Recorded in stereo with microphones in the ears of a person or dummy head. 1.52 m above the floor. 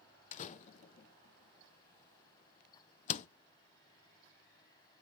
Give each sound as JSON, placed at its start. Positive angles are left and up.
{"t": 0.3, "sound": "a door slam", "side_deg": 30, "distance_m": 0.6}